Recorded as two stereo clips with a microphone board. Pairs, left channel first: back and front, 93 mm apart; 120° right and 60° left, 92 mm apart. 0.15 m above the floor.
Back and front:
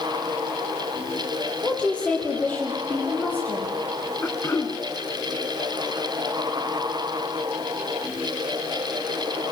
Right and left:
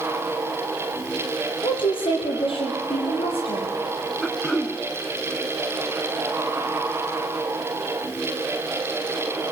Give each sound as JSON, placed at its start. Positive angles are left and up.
{"t": 1.6, "sound": "a woman speaking", "azimuth_deg": -100, "distance_m": 5.0}
{"t": 4.2, "sound": "throat clearing", "azimuth_deg": 160, "distance_m": 1.8}